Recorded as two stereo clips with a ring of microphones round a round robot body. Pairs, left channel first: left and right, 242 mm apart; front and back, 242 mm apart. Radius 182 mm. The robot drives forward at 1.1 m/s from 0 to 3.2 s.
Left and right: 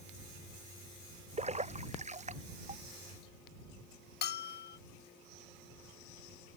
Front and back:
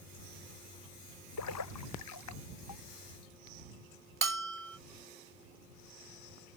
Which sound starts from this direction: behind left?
A bell, at 4.2 s.